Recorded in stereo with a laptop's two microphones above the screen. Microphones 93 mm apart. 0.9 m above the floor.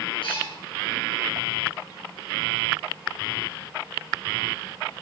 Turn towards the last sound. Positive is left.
turn(degrees=70)  # may be behind; listen again after turning